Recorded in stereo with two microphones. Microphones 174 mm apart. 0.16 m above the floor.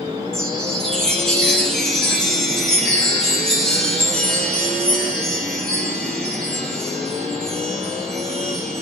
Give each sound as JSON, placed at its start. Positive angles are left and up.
{"t": 0.3, "sound": "a chime", "side_deg": 5, "distance_m": 2.5}